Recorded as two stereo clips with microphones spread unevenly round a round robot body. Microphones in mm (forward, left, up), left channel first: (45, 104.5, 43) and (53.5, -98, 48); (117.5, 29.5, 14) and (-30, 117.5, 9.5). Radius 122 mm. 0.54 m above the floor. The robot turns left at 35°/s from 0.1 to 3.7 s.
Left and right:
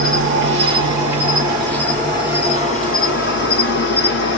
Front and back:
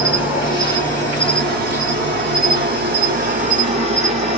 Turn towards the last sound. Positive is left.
turn(degrees=105)